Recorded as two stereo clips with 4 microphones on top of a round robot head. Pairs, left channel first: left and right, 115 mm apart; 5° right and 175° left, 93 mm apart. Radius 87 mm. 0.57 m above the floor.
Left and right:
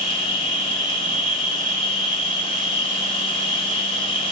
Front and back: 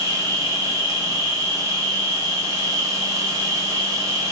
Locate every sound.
0.0 s an insect: 125° left, 4 m